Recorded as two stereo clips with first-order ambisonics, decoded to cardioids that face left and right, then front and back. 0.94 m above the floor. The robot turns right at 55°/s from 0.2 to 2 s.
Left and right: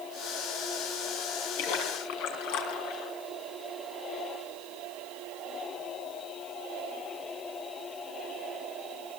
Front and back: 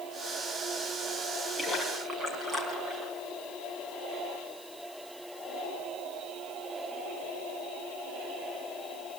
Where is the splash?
80° left, 4 m; by 3.1 s 105° left, 4 m.